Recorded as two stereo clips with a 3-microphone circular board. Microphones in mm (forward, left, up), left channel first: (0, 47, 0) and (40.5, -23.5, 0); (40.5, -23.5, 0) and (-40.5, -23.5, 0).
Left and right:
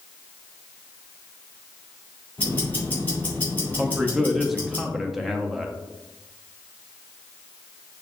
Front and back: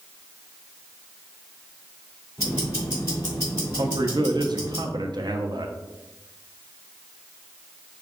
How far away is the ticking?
About 2 m.